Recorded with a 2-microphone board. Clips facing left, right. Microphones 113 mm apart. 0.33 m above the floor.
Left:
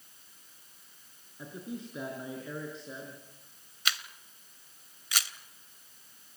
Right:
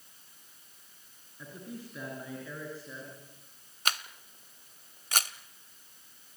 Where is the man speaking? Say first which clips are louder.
Left 3 dB; 20° left (ahead or behind), 5 m.